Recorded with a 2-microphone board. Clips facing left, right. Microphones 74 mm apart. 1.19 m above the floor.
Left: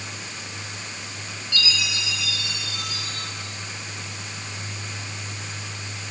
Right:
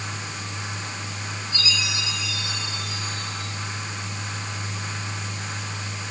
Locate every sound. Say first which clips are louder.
1.5 s a chime: left 2 dB; 80° left, 7 m